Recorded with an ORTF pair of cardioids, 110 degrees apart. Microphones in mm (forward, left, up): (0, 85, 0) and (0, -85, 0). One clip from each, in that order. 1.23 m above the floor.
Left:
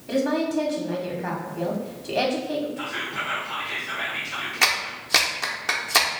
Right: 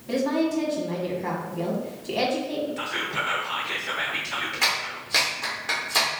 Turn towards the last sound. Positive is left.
turn(degrees=35)